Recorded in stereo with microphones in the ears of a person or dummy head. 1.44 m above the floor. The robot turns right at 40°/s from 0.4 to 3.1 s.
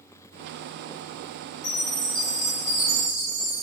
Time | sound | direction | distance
1.6 | a chime | 35° left | 1.2 m